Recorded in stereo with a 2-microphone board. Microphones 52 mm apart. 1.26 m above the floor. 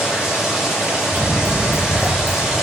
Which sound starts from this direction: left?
Running footsteps, at 1.1 s.